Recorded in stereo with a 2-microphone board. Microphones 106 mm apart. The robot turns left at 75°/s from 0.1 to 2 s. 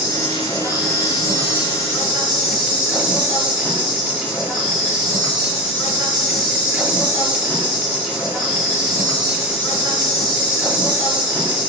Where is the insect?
160° left, 1.9 m; by 11.7 s 15° left, 1.9 m.